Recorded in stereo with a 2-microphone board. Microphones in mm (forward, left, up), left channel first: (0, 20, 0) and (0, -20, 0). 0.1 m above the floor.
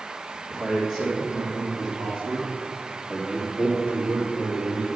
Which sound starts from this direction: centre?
A man speaking, at 0.5 s.